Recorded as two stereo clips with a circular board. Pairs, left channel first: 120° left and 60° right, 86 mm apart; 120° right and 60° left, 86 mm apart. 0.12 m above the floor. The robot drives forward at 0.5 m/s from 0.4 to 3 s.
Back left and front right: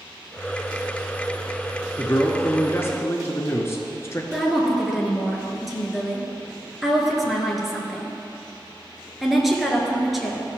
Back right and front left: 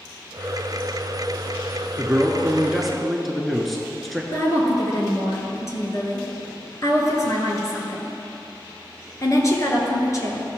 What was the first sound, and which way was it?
A man speaking, 110° left.